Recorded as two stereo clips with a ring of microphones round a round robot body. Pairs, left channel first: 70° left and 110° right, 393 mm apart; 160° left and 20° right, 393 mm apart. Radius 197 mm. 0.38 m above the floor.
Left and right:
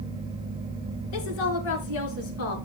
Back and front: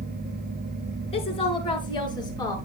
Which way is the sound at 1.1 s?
80° left.